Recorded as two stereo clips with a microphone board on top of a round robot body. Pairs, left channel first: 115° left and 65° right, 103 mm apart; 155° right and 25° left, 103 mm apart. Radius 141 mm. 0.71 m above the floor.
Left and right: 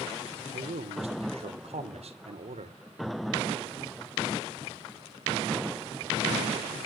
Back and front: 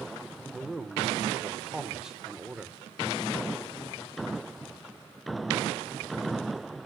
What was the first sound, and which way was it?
A man speaking, 65° right.